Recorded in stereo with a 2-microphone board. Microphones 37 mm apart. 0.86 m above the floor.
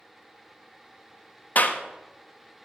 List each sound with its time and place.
1.6 s a clap: 50° left (ahead or behind), 0.9 m